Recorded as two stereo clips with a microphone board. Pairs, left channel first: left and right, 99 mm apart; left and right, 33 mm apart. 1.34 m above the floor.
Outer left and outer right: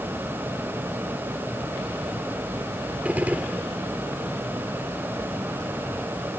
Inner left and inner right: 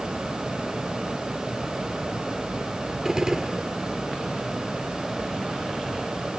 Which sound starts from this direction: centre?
A gunshot, at 3.0 s.